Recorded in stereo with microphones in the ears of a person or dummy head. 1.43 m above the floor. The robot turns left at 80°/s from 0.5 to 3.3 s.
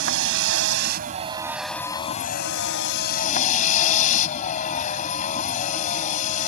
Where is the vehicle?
90° right; by 6.5 s 50° left.